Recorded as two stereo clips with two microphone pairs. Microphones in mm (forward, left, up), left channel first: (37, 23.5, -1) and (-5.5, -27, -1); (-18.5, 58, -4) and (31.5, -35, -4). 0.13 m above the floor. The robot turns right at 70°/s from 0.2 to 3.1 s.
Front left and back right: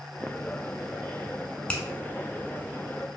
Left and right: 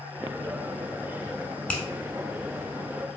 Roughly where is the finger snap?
Left.